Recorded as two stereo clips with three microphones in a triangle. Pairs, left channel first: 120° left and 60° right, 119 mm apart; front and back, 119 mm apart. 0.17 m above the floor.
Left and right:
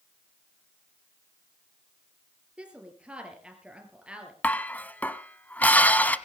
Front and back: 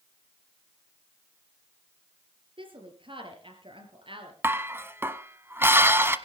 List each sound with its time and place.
2.6 s a woman speaking: 140° right, 4 m
4.4 s dishes clattering: 170° left, 0.8 m